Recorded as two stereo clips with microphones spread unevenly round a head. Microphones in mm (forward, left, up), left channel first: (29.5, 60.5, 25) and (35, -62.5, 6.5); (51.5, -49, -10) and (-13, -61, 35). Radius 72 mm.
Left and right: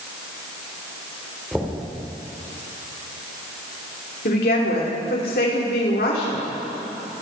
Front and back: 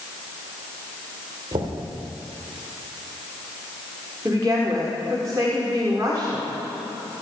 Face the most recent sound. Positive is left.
turn(degrees=125)